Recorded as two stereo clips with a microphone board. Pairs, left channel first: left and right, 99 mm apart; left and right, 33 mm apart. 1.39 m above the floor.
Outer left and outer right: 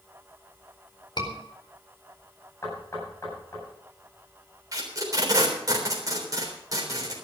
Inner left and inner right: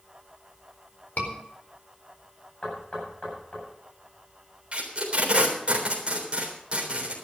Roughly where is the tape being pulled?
Right.